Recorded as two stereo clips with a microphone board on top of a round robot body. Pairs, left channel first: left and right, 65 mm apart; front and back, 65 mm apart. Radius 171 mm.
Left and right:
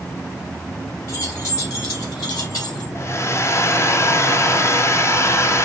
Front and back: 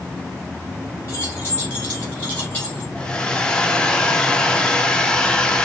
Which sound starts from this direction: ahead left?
Keys jangling, at 1.1 s.